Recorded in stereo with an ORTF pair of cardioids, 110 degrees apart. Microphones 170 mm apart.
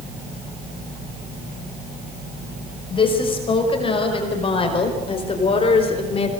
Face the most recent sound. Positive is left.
turn(degrees=35)